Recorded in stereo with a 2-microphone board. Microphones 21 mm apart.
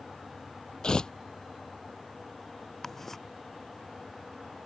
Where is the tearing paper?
35° left (ahead or behind).